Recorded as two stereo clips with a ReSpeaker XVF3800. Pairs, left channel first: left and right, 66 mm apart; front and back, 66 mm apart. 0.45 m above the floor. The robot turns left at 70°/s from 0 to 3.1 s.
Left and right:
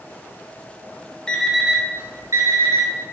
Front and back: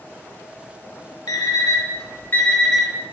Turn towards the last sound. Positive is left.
turn(degrees=-115)